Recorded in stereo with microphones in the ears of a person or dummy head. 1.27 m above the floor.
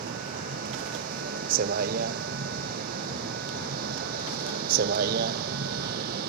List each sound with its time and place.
0.0 s a vehicle: 50° right (ahead or behind); by 6.3 s 55° right (ahead or behind)